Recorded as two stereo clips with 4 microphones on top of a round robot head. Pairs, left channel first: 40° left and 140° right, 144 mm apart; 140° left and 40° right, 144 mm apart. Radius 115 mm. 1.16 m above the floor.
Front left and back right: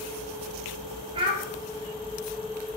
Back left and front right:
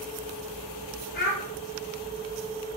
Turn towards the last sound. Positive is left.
turn(degrees=165)